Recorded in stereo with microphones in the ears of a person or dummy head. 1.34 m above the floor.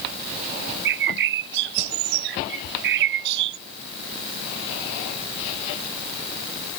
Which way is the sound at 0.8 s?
60° right (ahead or behind).